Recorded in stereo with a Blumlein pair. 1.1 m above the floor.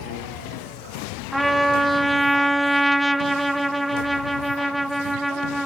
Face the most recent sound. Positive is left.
turn(degrees=-5)